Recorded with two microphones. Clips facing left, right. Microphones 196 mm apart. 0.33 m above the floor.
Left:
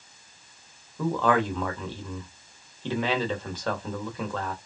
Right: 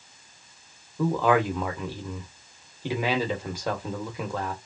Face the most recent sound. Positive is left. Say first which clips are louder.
# right 2 dB
turn(degrees=-10)  # may be behind; listen again after turning